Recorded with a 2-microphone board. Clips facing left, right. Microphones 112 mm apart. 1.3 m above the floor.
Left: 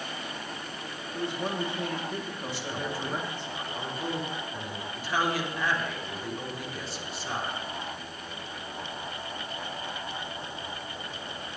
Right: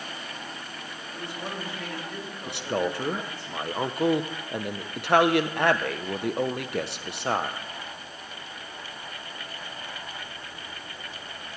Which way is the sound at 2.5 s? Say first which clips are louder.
Right 9 dB; 70° right (ahead or behind).